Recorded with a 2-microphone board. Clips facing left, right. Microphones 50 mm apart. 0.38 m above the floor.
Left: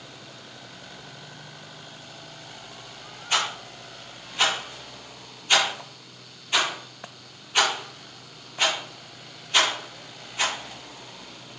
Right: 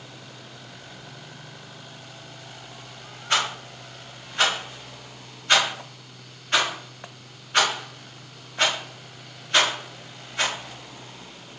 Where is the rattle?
50° right (ahead or behind), 1.5 m.